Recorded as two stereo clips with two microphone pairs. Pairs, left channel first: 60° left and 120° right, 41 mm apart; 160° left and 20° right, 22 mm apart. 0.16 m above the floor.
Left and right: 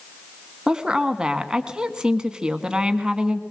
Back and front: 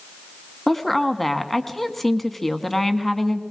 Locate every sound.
0.7 s a woman speaking: 150° right, 1.2 m